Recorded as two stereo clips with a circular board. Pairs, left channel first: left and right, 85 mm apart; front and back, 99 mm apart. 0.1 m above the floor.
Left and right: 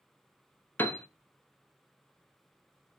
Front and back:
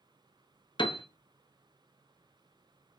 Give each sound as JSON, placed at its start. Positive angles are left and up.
{"t": 0.8, "sound": "a piano", "azimuth_deg": 25, "distance_m": 0.5}